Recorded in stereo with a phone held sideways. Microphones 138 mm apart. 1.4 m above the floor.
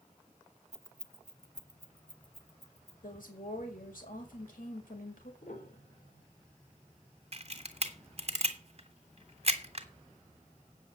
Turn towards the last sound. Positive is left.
turn(degrees=-50)  # may be behind; listen again after turning